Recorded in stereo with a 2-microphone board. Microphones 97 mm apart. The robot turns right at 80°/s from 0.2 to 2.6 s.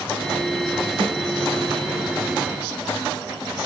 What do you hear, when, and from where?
1.0 s a snare drum: 50° right (ahead or behind), 1.2 m